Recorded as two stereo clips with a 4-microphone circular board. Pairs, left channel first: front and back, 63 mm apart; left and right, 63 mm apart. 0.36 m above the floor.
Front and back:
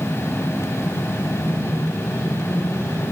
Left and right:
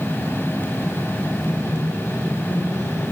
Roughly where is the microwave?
Ahead left.